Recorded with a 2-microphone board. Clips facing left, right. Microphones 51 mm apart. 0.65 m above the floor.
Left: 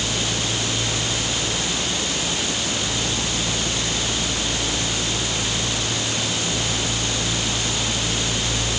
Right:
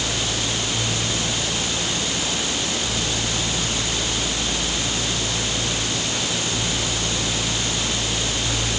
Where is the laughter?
No laughter in this recording.